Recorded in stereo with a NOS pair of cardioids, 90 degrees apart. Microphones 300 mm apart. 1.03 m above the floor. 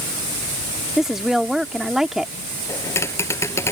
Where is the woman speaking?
Straight ahead.